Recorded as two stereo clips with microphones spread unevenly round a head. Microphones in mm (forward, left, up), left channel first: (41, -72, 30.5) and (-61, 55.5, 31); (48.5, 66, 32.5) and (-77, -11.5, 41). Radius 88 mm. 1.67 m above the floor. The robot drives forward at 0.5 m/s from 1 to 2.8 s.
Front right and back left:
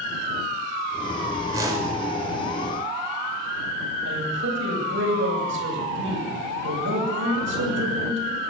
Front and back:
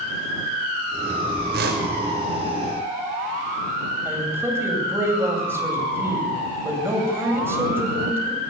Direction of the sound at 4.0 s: 135° left.